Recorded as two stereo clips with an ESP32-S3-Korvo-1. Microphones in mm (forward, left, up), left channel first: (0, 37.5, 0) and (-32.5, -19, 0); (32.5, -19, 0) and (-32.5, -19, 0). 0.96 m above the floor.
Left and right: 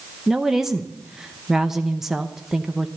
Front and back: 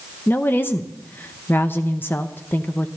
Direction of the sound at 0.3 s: 40° right.